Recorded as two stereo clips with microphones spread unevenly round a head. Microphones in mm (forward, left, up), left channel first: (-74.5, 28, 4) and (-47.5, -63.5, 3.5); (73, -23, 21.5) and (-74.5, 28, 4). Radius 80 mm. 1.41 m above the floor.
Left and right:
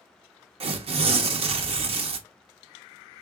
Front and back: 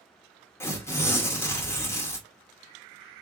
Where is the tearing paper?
95° right, 0.7 m.